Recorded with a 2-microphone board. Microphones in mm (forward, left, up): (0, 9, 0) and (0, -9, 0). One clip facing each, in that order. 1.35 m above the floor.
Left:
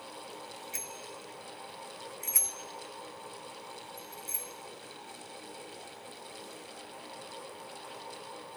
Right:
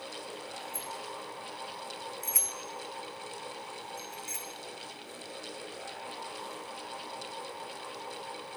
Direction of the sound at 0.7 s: 60° left (ahead or behind).